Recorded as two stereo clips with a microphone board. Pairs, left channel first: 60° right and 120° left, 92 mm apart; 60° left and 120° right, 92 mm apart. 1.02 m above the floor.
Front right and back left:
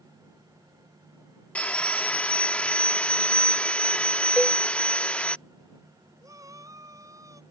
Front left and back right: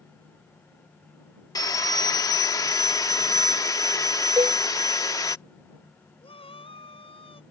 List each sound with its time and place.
1.6 s sawing: 15° left
4.4 s a cowbell: 160° right
6.2 s a shout: 65° left